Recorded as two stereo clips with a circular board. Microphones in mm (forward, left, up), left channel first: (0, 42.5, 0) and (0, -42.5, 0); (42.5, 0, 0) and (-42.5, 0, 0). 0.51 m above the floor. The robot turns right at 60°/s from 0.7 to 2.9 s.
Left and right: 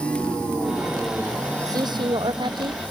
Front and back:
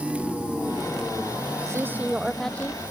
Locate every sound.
1.7 s a man speaking: 130° right; by 2.8 s 60° right